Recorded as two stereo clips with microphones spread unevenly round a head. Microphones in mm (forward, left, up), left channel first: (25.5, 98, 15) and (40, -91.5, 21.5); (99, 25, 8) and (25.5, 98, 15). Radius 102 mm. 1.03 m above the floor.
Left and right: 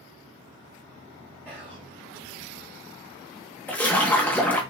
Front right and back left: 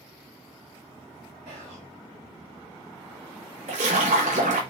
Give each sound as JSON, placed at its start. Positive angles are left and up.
{"t": 1.4, "sound": "whispering", "azimuth_deg": -170, "distance_m": 1.5}
{"t": 3.7, "sound": "a splash", "azimuth_deg": 175, "distance_m": 0.8}